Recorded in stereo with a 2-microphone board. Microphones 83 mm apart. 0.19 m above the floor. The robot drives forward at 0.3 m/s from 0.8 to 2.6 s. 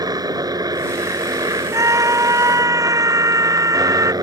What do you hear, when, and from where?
0.0 s a helicopter: 50° right (ahead or behind)
1.7 s a scream: 40° right (ahead or behind)